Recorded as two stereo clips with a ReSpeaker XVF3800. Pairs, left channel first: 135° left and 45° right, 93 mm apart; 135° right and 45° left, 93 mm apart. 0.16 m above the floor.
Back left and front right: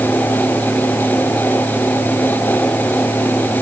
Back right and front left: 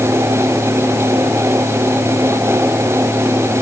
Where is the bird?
I don't hear a bird.